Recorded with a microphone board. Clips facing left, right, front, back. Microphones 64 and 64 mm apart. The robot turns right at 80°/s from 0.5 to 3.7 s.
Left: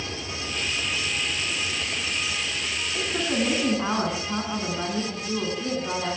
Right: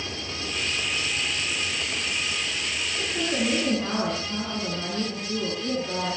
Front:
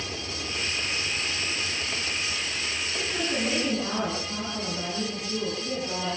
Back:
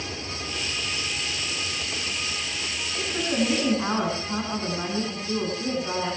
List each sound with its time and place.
3.0 s a woman speaking: 75° left, 8.5 m; by 6.2 s 135° left, 8.5 m